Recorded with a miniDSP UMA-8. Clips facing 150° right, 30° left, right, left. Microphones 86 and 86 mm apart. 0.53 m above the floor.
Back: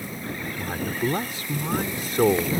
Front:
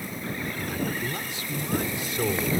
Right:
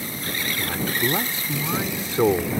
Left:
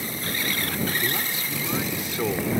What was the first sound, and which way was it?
A man speaking, 130° right.